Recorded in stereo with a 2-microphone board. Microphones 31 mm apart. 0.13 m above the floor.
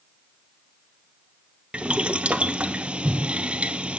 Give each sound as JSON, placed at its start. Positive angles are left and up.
{"t": 1.7, "sound": "boiling", "side_deg": -35, "distance_m": 0.5}